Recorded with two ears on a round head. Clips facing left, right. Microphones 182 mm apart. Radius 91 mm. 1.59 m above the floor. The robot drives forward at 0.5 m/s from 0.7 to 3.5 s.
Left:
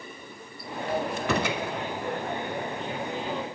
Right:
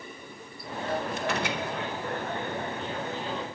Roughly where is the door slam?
Left.